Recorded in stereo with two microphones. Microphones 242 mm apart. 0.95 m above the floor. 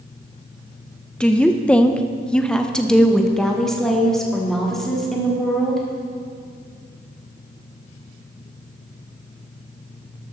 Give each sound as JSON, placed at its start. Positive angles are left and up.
{"t": 1.2, "sound": "a woman speaking", "side_deg": 5, "distance_m": 0.6}